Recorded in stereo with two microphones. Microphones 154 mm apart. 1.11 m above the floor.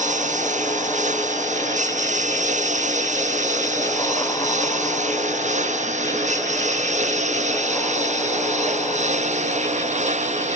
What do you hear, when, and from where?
0.0 s a lawn mower: 50° right (ahead or behind)